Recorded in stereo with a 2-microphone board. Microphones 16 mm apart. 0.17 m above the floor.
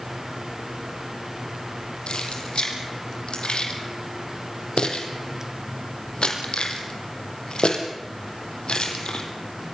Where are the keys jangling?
75° left (ahead or behind), 4.5 m.